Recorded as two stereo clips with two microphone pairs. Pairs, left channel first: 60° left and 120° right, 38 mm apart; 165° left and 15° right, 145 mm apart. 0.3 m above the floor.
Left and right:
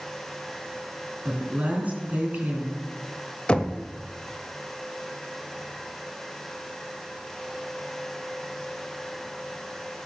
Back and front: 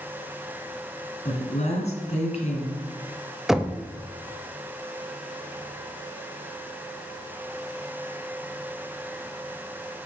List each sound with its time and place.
1.2 s a woman speaking: 165° right, 2.5 m
3.5 s knocking: 75° left, 0.6 m